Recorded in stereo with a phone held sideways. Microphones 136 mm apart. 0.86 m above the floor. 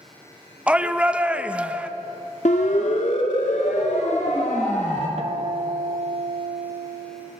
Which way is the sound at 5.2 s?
60° right (ahead or behind).